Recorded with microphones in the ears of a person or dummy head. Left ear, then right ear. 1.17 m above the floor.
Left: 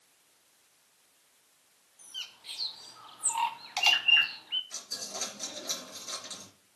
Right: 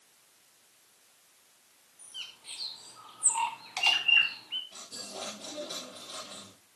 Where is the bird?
30° left (ahead or behind), 0.7 m.